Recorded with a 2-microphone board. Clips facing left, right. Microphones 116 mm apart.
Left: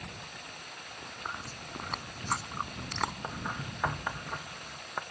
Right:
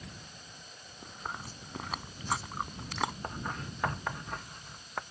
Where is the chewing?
5° right (ahead or behind).